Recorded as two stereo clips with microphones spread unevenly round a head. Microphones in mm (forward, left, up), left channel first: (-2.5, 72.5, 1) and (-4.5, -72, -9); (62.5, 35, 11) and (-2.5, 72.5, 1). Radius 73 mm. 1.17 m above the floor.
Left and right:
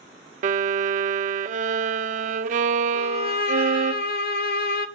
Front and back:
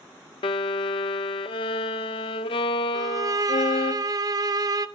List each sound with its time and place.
0.4 s a violin: 50° right, 0.6 m
2.9 s a violin: 110° left, 0.8 m